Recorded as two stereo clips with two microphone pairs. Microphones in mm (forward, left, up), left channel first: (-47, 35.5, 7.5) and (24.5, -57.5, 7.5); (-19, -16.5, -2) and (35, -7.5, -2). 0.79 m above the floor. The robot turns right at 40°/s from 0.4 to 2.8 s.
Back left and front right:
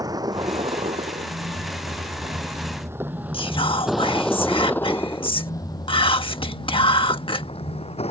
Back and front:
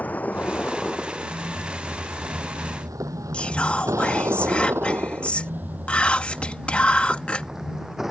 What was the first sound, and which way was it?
A vehicle, 110° right.